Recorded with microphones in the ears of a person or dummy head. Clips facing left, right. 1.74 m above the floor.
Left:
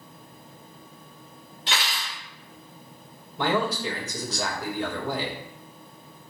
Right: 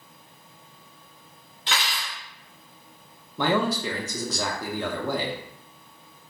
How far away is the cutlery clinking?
About 1.5 m.